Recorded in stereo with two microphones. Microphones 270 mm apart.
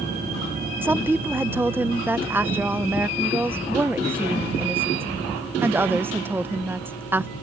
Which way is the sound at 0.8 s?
10° right (ahead or behind).